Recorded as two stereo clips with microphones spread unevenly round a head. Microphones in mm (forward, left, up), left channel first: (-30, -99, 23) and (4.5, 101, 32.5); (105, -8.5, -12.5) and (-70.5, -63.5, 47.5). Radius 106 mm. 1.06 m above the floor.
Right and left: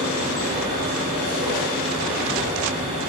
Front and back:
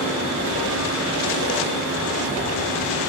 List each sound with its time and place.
0.0 s a machine running: 20° left, 1.7 m